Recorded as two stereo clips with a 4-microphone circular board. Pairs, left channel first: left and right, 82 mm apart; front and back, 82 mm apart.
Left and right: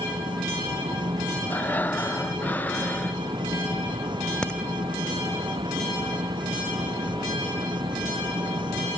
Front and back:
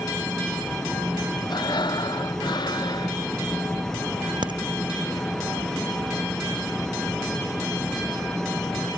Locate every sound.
0.0 s an insect: 85° right
1.5 s breathing: 25° left
4.4 s a crack: 170° left